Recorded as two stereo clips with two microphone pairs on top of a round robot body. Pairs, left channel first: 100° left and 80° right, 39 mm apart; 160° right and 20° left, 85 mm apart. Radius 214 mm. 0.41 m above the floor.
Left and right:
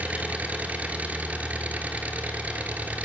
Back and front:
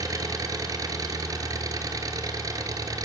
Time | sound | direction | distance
0.0 | an engine running | 25° right | 2.5 m